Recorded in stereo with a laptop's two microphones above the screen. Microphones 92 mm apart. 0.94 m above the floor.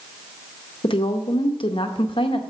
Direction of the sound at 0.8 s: 70° left (ahead or behind).